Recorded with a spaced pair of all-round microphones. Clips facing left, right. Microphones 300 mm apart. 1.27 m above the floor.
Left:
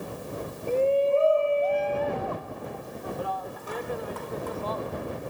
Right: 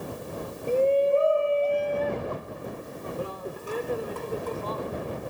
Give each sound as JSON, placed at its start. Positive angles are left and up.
{"t": 0.7, "sound": "a shout", "side_deg": -15}